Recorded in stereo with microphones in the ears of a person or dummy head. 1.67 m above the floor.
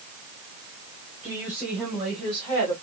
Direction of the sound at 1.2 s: 5° right (ahead or behind).